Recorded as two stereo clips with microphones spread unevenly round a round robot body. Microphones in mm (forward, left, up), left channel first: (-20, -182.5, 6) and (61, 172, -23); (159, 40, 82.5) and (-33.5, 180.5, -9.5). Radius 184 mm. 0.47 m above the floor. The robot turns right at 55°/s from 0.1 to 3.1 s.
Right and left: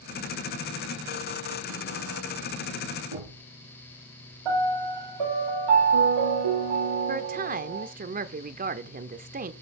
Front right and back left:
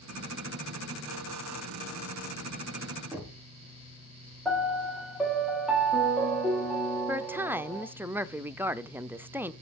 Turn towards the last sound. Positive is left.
turn(degrees=115)